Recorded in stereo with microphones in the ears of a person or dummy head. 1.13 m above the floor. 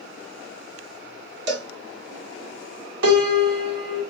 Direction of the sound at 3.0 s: 70° right (ahead or behind).